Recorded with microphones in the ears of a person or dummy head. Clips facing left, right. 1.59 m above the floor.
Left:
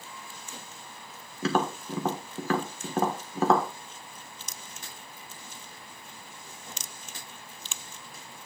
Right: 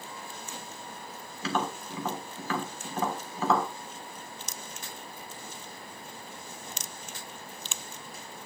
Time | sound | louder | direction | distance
1.4 | tapping | left 4 dB | 50° left (ahead or behind) | 1.3 m